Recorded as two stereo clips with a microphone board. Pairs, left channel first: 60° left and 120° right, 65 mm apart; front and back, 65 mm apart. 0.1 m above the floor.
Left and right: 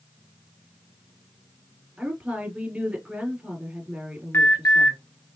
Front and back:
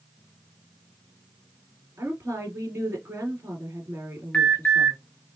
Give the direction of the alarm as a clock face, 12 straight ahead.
10 o'clock.